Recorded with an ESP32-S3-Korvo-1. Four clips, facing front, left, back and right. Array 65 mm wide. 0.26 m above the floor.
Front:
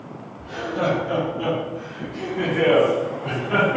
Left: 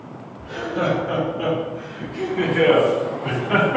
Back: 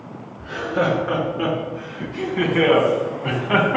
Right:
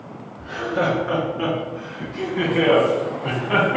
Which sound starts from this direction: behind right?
Laughter, at 0.4 s.